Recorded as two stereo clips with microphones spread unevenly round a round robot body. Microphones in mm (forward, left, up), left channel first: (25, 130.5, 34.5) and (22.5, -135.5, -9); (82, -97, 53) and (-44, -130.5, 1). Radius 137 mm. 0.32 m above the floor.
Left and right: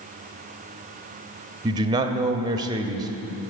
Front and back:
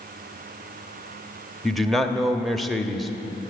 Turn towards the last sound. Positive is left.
turn(degrees=-125)